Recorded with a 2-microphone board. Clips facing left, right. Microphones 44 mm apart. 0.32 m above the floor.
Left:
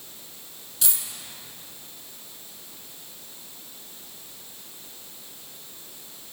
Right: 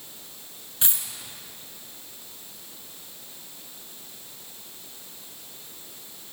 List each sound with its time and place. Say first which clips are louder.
0.8 s a dropped coin: right 1 dB; 30° right (ahead or behind), 1.8 m